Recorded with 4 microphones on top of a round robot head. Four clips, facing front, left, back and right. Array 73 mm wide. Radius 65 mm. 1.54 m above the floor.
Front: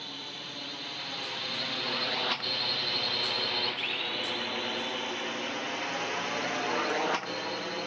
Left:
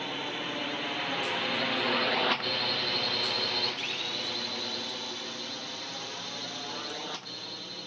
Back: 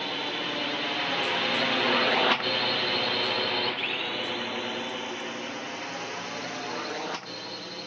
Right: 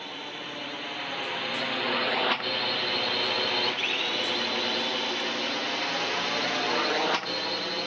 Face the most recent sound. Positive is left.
turn(degrees=-70)